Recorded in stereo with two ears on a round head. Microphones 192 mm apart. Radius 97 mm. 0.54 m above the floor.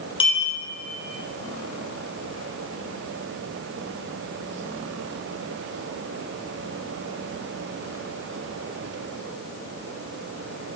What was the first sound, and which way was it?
A clink, 25° left (ahead or behind).